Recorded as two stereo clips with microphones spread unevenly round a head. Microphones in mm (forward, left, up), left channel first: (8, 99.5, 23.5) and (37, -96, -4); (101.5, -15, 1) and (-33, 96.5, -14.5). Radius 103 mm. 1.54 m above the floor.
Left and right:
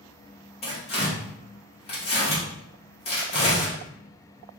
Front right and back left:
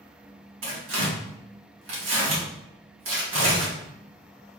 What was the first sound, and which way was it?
Tearing paper, 160° left.